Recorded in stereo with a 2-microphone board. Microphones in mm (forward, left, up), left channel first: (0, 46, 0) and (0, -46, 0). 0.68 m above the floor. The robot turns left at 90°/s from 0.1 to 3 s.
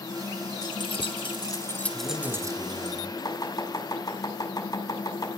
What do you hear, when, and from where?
0.6 s keys jangling: 45° left (ahead or behind), 1.4 m; by 2.9 s 65° right (ahead or behind), 1.4 m
1.9 s a man speaking: 20° left, 4 m; by 3.1 s 75° right, 4 m
3.2 s chopping: 45° left (ahead or behind), 6 m